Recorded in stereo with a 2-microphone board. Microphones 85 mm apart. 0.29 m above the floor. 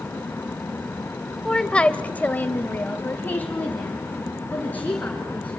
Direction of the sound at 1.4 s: 10° left (ahead or behind).